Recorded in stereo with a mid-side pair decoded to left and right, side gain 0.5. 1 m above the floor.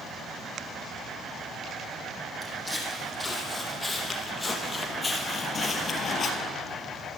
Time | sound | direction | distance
2.4 | footsteps | 5° left | 3 m